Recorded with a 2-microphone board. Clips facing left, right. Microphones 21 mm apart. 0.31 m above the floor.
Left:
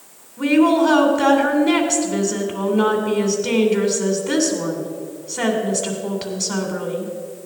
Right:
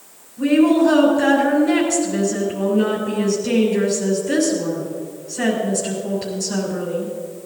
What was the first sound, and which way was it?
A woman speaking, 65° left (ahead or behind).